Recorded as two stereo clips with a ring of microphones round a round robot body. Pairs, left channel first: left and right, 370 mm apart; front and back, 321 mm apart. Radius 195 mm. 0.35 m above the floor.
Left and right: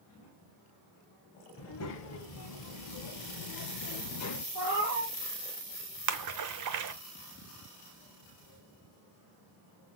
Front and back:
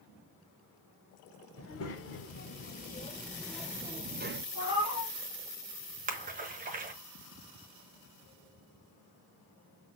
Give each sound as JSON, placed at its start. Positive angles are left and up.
{"t": 1.6, "sound": "a child speaking", "azimuth_deg": 40, "distance_m": 1.6}
{"t": 4.5, "sound": "a cat meowing", "azimuth_deg": -65, "distance_m": 3.5}
{"t": 6.1, "sound": "a splash", "azimuth_deg": -120, "distance_m": 1.0}